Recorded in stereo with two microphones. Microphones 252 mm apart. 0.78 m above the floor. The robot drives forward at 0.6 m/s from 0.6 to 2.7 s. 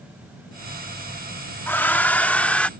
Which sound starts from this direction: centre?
A hair dryer, at 1.7 s.